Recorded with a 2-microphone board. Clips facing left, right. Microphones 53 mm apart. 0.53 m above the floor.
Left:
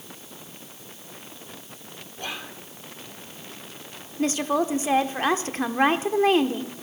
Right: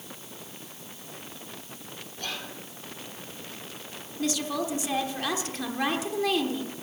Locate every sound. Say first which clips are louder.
2.2 s whispering: left 2 dB; 20° left (ahead or behind), 1.8 m
4.2 s a woman speaking: left 6 dB; 40° left (ahead or behind), 1.1 m